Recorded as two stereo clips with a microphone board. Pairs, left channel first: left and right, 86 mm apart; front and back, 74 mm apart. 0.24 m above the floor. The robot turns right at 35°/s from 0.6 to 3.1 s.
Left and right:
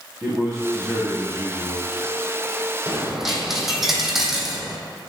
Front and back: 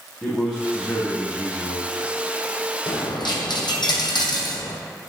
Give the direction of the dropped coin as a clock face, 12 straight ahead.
12 o'clock.